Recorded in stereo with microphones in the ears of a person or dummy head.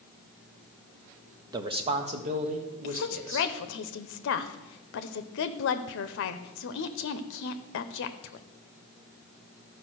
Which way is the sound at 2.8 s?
60° left (ahead or behind).